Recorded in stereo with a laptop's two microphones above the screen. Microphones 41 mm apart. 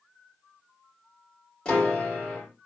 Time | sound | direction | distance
1.6 | a piano | 20° left (ahead or behind) | 1.4 m